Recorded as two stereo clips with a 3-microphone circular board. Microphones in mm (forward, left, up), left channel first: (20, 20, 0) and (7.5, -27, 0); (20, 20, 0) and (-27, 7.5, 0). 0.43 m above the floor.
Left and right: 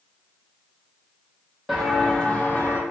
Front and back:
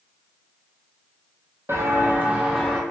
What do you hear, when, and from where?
1.7 s footsteps: 170° left, 0.9 m; by 2.8 s 105° left, 0.9 m